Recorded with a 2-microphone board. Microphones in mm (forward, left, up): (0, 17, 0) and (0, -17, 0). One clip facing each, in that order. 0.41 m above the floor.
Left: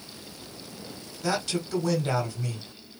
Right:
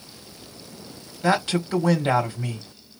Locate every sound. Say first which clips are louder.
1.2 s a man speaking: right 6 dB; 30° right (ahead or behind), 1.1 m